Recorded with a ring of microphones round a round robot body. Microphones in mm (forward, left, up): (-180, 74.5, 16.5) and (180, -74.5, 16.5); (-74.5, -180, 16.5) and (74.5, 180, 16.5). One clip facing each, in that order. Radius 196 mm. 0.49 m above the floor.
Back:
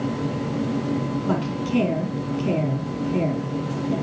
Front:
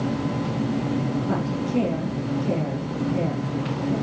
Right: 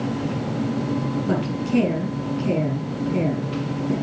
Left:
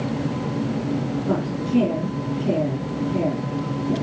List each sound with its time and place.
1.3 s a woman speaking: 175° right, 4.5 m